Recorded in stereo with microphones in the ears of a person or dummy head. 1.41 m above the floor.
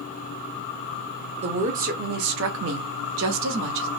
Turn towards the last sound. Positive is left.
turn(degrees=-70)  # may be behind; listen again after turning